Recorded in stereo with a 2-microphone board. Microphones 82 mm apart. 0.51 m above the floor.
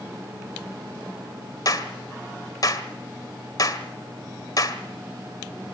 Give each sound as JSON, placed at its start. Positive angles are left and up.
{"t": 1.6, "sound": "a clap", "side_deg": 50, "distance_m": 1.8}